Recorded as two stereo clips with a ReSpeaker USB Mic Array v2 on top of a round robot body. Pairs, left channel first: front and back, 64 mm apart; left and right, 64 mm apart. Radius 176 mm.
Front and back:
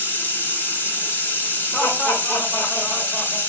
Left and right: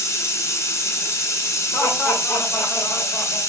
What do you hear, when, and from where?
0.0 s running water: 55° left, 1.1 m
1.7 s laughter: 35° left, 1.2 m